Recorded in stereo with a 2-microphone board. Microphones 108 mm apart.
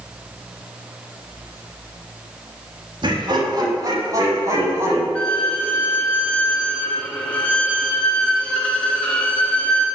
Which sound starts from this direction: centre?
A violin, at 5.2 s.